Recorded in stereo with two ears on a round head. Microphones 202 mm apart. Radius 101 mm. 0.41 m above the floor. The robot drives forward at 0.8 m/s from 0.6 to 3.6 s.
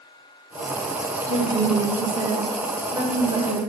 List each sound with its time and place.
1.3 s a woman speaking: 20° right (ahead or behind), 1.2 m; by 3.6 s 15° right (ahead or behind), 1.7 m